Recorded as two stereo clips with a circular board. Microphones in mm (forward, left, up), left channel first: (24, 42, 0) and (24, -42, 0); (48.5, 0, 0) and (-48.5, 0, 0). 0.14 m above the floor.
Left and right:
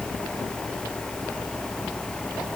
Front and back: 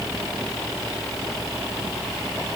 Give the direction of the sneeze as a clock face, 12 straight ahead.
I don't hear a sneeze.